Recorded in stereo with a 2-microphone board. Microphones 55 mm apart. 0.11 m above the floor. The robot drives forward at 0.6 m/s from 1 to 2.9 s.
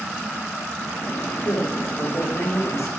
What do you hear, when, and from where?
1.4 s a man speaking: 70° left (ahead or behind), 5 m; by 2.9 s 75° left (ahead or behind), 5 m